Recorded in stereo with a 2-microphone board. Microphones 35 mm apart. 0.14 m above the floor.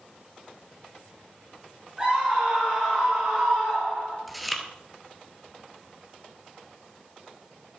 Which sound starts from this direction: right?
A scream, at 2.0 s.